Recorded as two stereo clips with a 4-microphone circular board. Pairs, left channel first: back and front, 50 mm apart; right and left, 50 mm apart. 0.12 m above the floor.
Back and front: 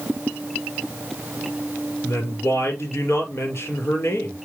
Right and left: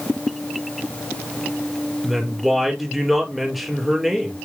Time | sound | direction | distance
2.0 | a woman speaking | 175° left | 2.5 m